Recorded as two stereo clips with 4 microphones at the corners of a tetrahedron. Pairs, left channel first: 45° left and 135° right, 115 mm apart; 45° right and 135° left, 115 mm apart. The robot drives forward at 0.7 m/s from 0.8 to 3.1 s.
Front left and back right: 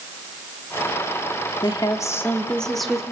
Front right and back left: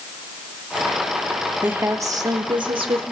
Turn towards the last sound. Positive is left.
turn(degrees=140)